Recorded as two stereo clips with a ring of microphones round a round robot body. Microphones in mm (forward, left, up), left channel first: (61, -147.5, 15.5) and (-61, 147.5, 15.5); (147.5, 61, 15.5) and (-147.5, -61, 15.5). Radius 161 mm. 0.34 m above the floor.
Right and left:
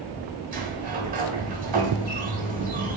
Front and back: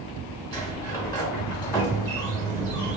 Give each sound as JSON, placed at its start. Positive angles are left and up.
{"t": 0.5, "sound": "a sliding door", "azimuth_deg": 85, "distance_m": 1.1}